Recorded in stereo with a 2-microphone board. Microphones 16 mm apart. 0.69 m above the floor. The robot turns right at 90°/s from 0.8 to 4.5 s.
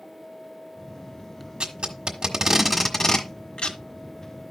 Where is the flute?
No flute in this recording.